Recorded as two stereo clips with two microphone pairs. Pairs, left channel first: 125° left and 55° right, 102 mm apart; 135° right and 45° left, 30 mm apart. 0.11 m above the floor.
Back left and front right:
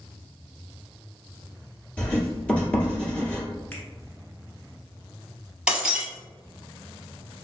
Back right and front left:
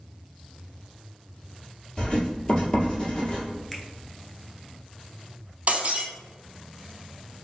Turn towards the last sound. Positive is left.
turn(degrees=25)